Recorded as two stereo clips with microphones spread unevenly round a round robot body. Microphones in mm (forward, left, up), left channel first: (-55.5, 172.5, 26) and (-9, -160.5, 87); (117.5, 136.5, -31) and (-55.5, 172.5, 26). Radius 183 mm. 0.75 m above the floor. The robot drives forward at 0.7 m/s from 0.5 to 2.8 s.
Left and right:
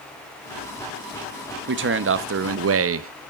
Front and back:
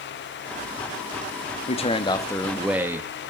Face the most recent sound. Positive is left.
turn(degrees=-85)